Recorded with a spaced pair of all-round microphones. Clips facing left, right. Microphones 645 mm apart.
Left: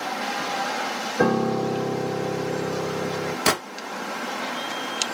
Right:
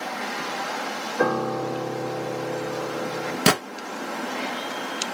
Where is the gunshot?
55° right (ahead or behind), 1.3 m.